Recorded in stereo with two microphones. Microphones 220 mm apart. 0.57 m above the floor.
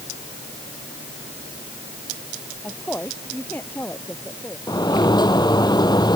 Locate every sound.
2.6 s a woman speaking: 5° left (ahead or behind); by 4.6 s 10° left (ahead or behind)
4.7 s a sliding door: 20° left (ahead or behind)